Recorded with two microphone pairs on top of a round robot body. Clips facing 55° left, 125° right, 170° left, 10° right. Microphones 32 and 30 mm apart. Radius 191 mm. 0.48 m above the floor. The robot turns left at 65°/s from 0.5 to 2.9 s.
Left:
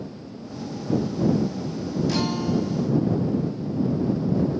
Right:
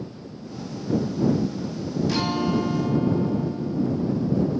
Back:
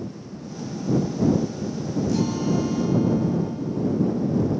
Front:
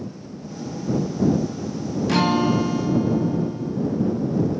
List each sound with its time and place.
2.1 s a guitar: 35° right; by 4.5 s 90° right